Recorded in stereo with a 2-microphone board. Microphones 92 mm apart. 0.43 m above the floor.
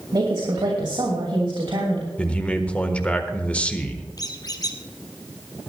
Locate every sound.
0.1 s a woman speaking: 55° right (ahead or behind), 2.5 m; by 2.1 s 65° right (ahead or behind), 3 m
2.2 s a man speaking: 15° left (ahead or behind), 1.5 m
4.2 s a squeak: 45° left (ahead or behind), 1.3 m